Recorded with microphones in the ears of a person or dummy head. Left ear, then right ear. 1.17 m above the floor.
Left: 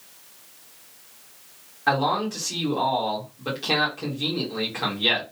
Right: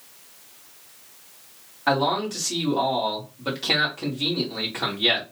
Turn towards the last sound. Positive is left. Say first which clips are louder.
# even
turn(degrees=-10)  # may be behind; listen again after turning